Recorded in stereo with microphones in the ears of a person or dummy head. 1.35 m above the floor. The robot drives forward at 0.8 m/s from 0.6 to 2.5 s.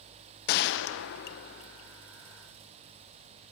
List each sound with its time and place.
0.5 s a gunshot: 65° left (ahead or behind), 0.6 m; by 1.9 s 30° left (ahead or behind), 1.0 m